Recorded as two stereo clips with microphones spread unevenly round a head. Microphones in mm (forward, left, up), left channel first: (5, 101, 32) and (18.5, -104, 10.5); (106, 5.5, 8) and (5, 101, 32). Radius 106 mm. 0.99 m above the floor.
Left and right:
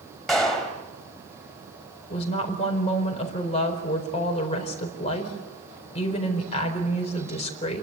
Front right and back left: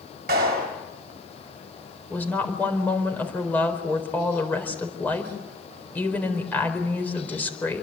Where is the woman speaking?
35° left, 4.5 m.